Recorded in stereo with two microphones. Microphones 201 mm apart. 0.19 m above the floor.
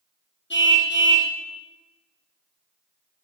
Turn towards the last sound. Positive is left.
turn(degrees=65)  # may be behind; listen again after turning